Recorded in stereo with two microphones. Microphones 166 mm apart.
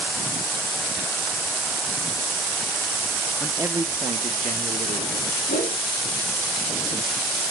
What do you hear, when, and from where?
3.4 s a man speaking: centre (ahead or behind), 0.7 m; by 5.4 s 55° right (ahead or behind), 1.5 m
5.5 s a whoosh: 80° left, 3 m